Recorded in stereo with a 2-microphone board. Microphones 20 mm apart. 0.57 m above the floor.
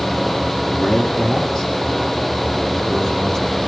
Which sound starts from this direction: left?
A man speaking, at 0.7 s.